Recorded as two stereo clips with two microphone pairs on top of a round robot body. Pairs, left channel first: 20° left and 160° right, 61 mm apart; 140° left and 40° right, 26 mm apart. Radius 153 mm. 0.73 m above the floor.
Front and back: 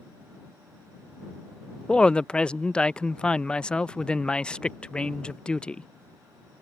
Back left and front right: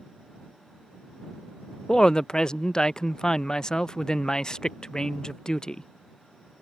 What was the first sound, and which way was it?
A woman speaking, 90° left.